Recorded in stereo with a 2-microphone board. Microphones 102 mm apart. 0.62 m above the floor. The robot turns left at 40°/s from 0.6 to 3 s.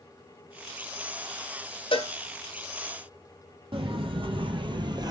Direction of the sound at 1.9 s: 55° left (ahead or behind).